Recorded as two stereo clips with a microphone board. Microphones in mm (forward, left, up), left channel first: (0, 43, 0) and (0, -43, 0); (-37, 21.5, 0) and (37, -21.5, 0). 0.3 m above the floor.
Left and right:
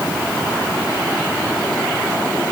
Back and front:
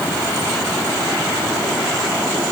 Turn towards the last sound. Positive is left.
No sound to turn to.